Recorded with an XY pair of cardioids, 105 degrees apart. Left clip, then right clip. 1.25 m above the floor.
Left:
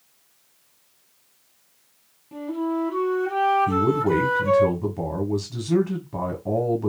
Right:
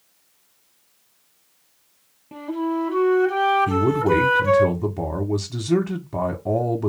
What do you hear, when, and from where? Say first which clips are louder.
2.3 s a flute: right 1 dB; 50° right, 0.9 m
3.7 s a man speaking: right 1 dB; 30° right, 0.7 m